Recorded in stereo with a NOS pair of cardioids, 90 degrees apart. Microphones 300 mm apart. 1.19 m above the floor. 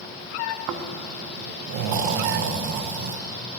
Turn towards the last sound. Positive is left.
turn(degrees=-65)